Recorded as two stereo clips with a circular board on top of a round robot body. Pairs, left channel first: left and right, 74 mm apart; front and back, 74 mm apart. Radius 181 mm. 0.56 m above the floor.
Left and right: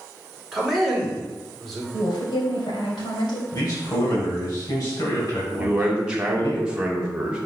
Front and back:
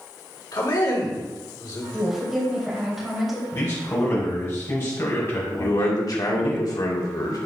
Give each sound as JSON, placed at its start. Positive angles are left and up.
{"t": 0.5, "sound": "a man speaking", "azimuth_deg": 0, "distance_m": 3.0}
{"t": 1.9, "sound": "a woman speaking", "azimuth_deg": 90, "distance_m": 3.0}
{"t": 3.5, "sound": "a man speaking", "azimuth_deg": 55, "distance_m": 3.5}
{"t": 5.6, "sound": "a man speaking", "azimuth_deg": -15, "distance_m": 2.0}